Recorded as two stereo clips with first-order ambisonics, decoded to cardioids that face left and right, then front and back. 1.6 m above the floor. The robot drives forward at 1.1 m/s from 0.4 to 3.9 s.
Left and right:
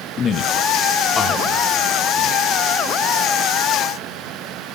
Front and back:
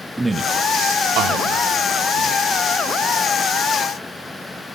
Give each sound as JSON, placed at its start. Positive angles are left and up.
{"t": 0.2, "sound": "a man speaking", "azimuth_deg": 100, "distance_m": 0.5}